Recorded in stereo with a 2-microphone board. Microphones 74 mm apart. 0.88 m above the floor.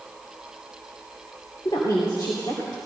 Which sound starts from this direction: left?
A woman speaking, at 1.6 s.